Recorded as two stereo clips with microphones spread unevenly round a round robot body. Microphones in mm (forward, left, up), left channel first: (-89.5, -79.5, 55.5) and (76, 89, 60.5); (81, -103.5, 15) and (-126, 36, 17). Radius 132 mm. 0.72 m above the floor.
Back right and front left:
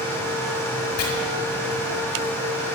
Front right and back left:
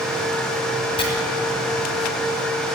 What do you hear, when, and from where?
1.0 s chopping: 105° right, 2 m